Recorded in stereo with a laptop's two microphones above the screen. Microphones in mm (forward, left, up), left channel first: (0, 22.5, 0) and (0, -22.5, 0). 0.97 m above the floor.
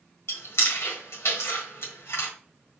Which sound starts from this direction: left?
Chewing, at 0.3 s.